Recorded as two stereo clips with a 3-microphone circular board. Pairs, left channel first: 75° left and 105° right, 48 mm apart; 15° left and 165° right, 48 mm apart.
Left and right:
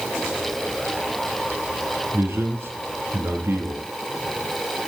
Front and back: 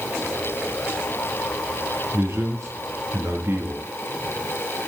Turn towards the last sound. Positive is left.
turn(degrees=-130)